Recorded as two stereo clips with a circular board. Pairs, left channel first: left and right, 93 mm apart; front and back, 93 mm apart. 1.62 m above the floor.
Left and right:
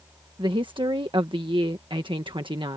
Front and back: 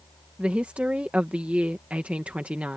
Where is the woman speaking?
105° right.